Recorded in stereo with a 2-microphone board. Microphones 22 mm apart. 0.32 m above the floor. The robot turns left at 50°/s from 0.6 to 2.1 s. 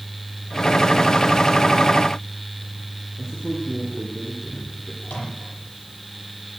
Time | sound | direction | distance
3.2 | a man speaking | 35° left (ahead or behind) | 8.5 m
5.0 | a microwave | 65° left (ahead or behind) | 9 m